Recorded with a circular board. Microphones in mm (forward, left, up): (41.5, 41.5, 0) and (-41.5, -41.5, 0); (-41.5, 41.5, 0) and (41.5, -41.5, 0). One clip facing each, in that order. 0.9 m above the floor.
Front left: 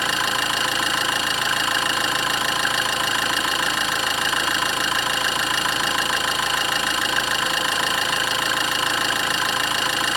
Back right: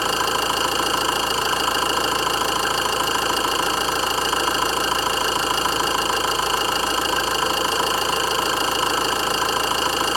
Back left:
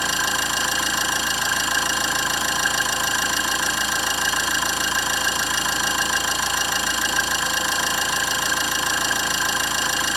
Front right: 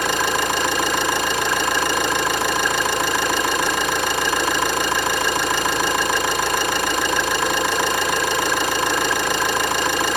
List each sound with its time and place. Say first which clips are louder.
0.0 s an engine running: back right 3 dB, front right 5 dB; 80° right, 1.9 m